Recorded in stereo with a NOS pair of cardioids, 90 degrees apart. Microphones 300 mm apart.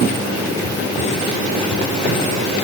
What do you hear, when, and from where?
Only background noise.